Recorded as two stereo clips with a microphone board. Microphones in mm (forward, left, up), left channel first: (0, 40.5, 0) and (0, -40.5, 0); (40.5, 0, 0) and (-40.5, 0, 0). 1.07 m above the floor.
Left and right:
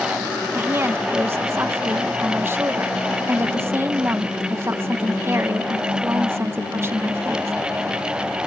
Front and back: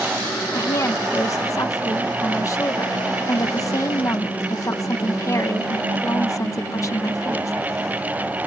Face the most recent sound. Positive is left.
turn(degrees=-40)